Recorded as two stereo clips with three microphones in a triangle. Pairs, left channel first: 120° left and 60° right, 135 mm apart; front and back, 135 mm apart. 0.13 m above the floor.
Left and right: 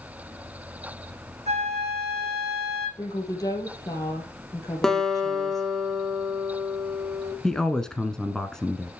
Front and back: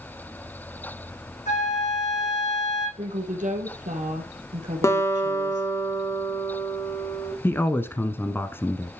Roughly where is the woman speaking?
Behind.